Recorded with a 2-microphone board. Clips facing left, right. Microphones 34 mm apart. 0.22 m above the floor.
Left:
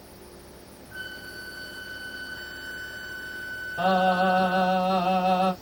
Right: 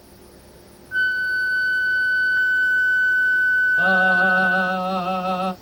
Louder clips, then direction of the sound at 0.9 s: Right 18 dB; 50° right (ahead or behind).